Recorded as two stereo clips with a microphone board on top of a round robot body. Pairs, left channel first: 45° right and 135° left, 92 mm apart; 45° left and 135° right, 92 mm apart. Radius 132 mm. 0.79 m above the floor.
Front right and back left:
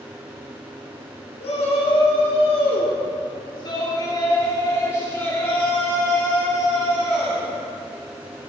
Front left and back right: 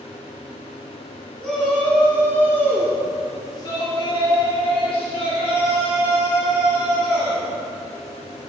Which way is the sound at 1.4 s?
40° right.